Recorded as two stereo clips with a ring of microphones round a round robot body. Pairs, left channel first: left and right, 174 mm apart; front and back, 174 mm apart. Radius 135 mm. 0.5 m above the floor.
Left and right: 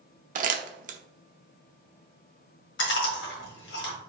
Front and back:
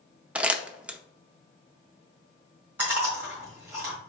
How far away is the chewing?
About 1.6 m.